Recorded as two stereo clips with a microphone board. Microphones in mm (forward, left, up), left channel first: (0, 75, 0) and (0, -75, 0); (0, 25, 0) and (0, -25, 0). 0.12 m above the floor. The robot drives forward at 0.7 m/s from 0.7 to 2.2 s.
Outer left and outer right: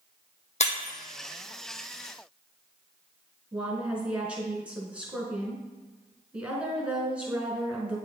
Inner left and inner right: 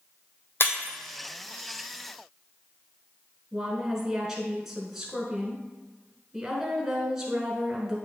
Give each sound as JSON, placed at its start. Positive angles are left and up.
{"t": 0.6, "sound": "breaking glass", "side_deg": 50, "distance_m": 1.2}
{"t": 3.5, "sound": "a woman speaking", "side_deg": -10, "distance_m": 1.3}